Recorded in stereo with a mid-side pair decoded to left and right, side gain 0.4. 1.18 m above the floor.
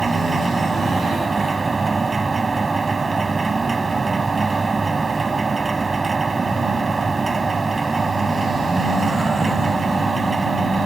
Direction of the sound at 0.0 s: 30° right.